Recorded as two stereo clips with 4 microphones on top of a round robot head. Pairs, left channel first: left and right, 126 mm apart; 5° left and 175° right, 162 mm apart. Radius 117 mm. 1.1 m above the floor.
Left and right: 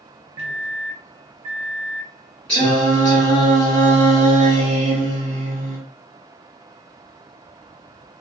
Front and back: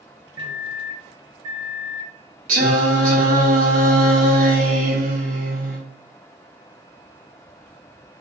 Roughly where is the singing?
Behind.